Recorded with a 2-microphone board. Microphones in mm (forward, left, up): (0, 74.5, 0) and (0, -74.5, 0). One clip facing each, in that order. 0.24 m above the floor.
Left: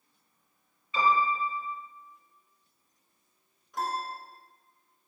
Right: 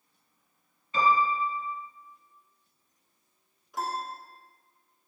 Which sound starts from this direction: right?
A piano, at 0.9 s.